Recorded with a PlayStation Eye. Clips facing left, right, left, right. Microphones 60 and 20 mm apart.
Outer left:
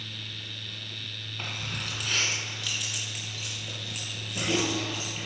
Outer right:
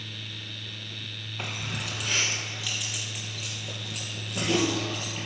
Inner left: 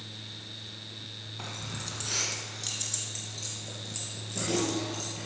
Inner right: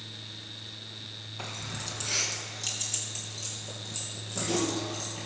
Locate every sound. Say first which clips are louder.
1.4 s keys jangling: outer right 2 dB, inner right 1 dB; 10° right (ahead or behind), 1.4 m; by 5.3 s 5° left (ahead or behind), 4.5 m